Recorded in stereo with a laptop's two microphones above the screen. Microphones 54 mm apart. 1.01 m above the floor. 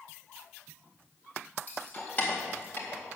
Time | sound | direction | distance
1.7 | keys jangling | 30° left (ahead or behind) | 3.5 m